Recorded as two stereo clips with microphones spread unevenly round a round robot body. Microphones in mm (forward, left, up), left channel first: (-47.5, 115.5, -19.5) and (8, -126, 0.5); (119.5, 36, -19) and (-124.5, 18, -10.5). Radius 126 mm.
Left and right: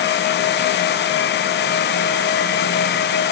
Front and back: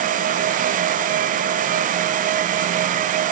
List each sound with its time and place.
Only background noise.